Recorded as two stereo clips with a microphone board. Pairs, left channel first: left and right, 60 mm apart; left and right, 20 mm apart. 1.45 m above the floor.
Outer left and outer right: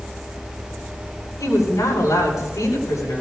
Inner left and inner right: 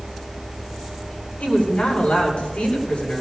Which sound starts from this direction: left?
A woman speaking, at 1.4 s.